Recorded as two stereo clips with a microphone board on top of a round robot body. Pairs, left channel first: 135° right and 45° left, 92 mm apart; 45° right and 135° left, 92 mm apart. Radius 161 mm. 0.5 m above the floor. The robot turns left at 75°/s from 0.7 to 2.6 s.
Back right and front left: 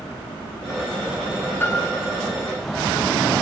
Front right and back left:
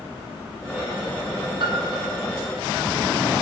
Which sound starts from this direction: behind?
A piano, at 1.6 s.